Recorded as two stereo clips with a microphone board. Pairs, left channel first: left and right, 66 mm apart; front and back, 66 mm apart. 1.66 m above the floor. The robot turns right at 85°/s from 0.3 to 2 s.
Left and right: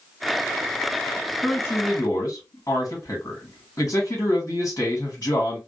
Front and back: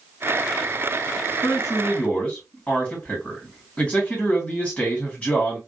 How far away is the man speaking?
About 1.7 m.